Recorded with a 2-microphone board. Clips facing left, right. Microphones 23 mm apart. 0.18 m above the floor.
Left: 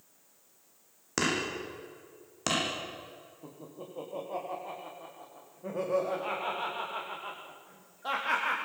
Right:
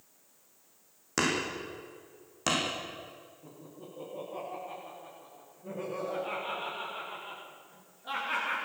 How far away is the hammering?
About 8 m.